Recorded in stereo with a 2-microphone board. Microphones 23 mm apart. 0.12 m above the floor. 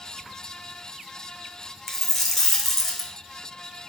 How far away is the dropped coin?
About 0.6 m.